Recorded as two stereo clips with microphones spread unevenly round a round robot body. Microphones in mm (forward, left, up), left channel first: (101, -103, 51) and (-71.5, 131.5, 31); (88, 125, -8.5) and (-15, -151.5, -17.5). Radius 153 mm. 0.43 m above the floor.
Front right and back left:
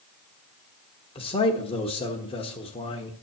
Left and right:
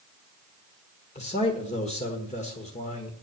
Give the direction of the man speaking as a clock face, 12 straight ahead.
12 o'clock.